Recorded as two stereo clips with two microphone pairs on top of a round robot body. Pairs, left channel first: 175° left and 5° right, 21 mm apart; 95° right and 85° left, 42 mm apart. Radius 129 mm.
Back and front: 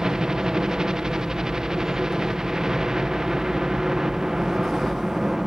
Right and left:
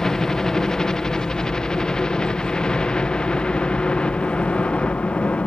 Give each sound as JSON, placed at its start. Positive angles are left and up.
{"t": 0.0, "sound": "a helicopter", "azimuth_deg": -25}